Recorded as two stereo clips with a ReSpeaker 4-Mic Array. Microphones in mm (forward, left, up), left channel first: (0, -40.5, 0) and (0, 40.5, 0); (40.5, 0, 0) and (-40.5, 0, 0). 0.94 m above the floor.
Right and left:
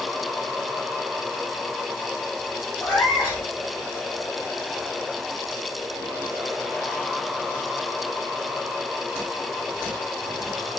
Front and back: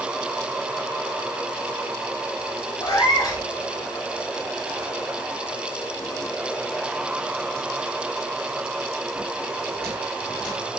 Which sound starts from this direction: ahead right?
A cat meowing, at 2.8 s.